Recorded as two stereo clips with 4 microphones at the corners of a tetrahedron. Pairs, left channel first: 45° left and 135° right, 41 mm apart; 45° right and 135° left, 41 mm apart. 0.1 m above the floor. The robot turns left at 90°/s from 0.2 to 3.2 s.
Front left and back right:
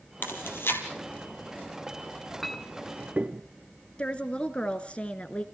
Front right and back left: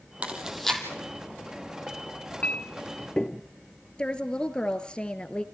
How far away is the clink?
About 0.9 m.